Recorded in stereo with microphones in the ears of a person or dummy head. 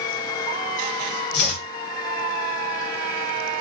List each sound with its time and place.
1.3 s chopping: 50° left (ahead or behind), 1.6 m